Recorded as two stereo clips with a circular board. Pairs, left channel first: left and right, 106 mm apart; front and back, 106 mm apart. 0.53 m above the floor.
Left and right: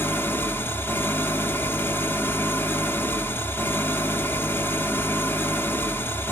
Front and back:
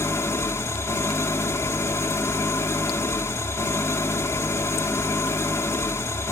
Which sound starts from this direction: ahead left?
An engine running, at 0.0 s.